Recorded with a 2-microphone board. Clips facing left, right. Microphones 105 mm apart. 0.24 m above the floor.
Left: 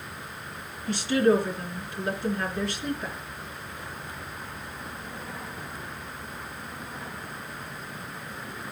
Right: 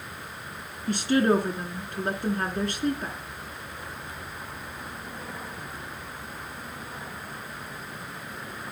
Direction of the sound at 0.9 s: 50° right (ahead or behind).